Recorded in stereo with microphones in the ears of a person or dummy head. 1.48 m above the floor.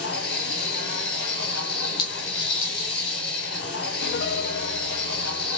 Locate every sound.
0.0 s a machine running: 55° left (ahead or behind), 3 m
2.0 s a clink: 20° left (ahead or behind), 1.3 m
4.0 s a piano: 60° left (ahead or behind), 0.7 m